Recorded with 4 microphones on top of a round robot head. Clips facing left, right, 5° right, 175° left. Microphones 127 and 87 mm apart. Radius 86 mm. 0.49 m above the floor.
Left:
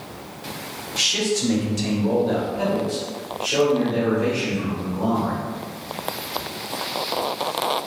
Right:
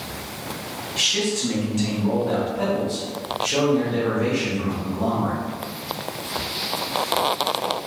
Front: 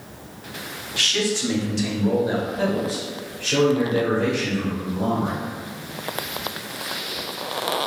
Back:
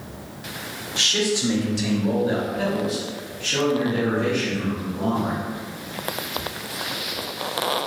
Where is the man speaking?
125° left, 1.0 m; by 5.4 s 5° right, 1.9 m.